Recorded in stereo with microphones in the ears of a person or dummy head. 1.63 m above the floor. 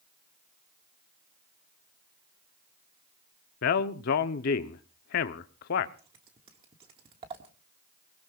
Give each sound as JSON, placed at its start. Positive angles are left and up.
{"t": 3.6, "sound": "a man speaking", "side_deg": 55, "distance_m": 0.8}
{"t": 6.0, "sound": "scissors", "side_deg": -30, "distance_m": 1.4}